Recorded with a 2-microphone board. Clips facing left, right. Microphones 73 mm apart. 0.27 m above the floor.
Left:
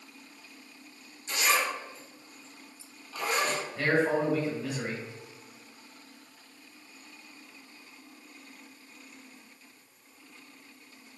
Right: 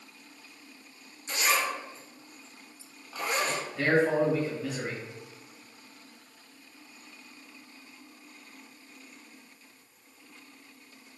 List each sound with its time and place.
1.3 s a zipper: 25° right (ahead or behind), 0.8 m
3.8 s a man speaking: centre (ahead or behind), 1.0 m